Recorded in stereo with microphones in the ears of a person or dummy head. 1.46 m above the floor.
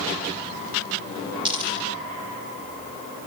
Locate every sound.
1.4 s a dropped coin: 30° right (ahead or behind), 6 m